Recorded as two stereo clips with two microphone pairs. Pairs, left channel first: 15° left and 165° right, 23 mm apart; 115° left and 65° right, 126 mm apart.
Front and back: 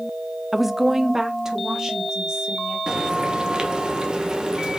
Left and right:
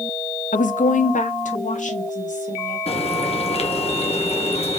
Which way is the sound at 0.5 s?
110° left.